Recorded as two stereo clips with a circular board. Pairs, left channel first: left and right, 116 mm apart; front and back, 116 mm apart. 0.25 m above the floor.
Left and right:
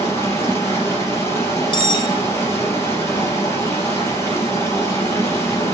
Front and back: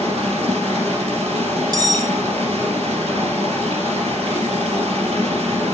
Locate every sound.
0.0 s running water: 160° left, 3.5 m
1.7 s cutlery clinking: 130° left, 1.1 m